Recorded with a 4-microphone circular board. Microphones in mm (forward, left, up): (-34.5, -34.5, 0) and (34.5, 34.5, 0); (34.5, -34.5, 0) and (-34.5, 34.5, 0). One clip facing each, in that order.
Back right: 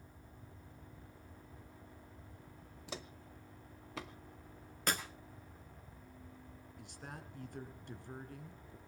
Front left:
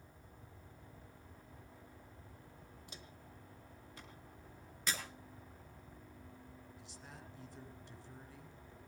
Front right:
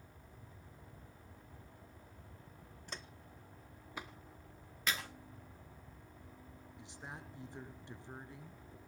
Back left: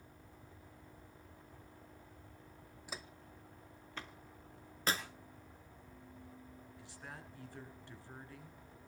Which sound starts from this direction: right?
A woman speaking, at 6.8 s.